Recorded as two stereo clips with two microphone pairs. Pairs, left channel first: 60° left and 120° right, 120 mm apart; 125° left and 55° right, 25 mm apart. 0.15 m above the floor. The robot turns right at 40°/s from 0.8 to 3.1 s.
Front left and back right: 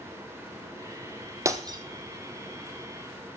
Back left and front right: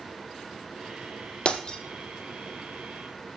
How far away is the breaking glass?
About 1.6 m.